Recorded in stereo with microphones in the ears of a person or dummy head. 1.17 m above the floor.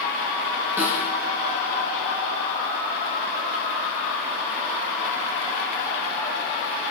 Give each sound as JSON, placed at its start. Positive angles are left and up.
{"t": 0.8, "sound": "a snare drum", "side_deg": 5, "distance_m": 4.5}